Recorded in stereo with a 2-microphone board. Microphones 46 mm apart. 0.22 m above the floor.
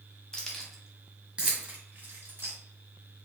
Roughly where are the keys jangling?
Centre.